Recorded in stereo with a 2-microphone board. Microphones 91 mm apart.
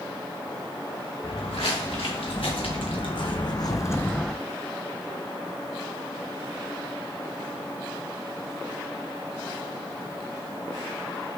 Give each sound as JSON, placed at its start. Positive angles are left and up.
{"t": 1.2, "sound": "footsteps", "side_deg": 85, "distance_m": 1.8}